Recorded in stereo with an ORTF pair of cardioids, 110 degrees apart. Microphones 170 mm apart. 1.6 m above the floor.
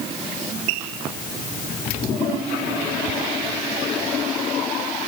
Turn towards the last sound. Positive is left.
No sound to turn to.